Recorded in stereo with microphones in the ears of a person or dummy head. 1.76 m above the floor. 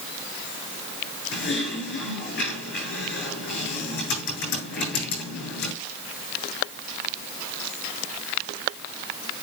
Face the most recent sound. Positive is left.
turn(degrees=60)  # may be behind; listen again after turning